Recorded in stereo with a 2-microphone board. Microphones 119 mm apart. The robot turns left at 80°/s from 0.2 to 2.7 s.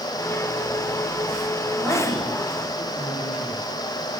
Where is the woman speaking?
10° left (ahead or behind), 2.5 m; by 3.6 s 75° left (ahead or behind), 2.5 m.